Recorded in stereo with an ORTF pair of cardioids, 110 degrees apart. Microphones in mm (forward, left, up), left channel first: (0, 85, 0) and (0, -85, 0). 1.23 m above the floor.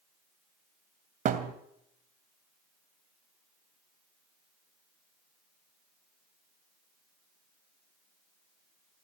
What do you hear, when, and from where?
1.2 s a thud: 60° right, 3 m